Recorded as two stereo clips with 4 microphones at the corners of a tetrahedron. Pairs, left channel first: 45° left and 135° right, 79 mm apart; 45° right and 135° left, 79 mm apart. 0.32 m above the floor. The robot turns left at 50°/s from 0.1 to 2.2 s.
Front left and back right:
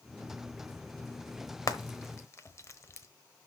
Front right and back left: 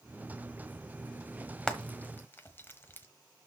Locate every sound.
1.7 s frying: 30° left, 1.1 m; by 3.1 s 5° left, 1.1 m